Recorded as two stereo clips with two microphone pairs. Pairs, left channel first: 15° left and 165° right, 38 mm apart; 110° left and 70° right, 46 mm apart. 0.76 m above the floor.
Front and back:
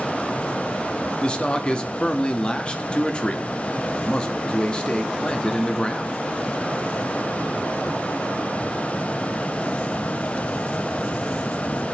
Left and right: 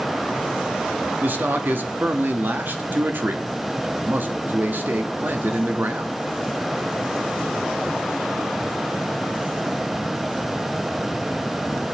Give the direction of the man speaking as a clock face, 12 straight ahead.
2 o'clock.